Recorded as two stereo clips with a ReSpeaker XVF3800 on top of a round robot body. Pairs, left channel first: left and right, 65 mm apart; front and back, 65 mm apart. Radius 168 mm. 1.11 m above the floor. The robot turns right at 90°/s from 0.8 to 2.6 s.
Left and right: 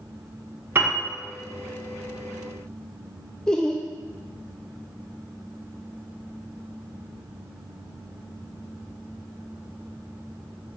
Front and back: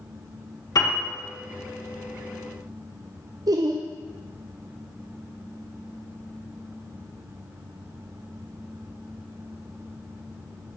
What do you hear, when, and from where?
0.8 s a piano: 30° right, 1.5 m; by 1.1 s 5° right, 1.5 m
3.5 s laughter: 170° left, 0.5 m